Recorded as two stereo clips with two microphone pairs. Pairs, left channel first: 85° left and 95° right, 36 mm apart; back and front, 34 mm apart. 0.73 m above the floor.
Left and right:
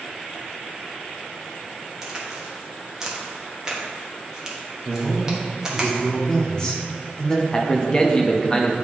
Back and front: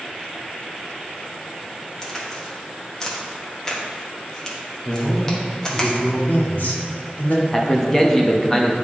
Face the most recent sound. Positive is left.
turn(degrees=125)